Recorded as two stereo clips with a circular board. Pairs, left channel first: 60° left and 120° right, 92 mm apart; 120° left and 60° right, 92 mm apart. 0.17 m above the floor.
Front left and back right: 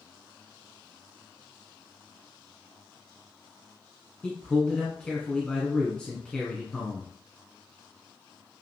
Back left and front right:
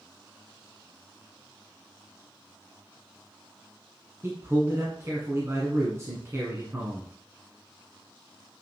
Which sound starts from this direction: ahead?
A man speaking, at 4.2 s.